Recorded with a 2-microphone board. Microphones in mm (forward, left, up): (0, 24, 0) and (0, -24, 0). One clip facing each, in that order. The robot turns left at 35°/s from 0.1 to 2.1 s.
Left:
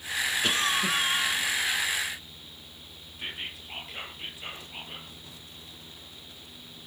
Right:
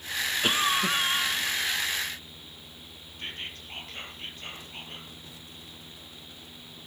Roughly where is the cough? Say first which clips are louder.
Right 3 dB; behind right.